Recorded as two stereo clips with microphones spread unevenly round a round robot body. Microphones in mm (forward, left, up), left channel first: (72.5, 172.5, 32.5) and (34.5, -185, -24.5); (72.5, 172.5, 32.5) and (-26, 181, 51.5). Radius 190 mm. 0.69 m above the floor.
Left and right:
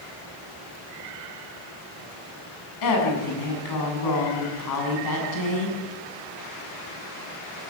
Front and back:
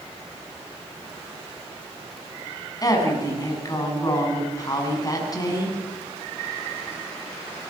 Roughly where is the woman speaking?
Ahead left.